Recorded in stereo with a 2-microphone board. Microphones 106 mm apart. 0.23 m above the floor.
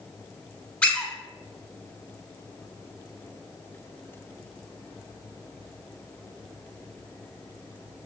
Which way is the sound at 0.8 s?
10° left (ahead or behind).